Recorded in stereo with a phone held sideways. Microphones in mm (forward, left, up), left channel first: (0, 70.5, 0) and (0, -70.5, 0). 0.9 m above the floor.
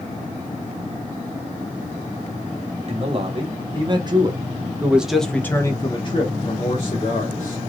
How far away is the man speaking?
About 1.6 m.